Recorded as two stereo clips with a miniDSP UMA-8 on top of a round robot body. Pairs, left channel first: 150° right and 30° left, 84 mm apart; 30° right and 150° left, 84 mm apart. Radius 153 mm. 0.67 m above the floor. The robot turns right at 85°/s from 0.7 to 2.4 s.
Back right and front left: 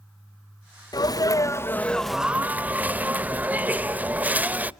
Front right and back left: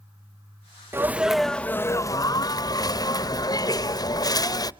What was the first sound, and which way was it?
A sneeze, 160° right.